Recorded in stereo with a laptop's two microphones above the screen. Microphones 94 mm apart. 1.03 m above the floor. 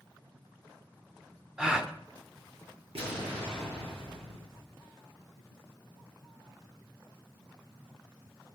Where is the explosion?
75° right (ahead or behind), 6.5 m.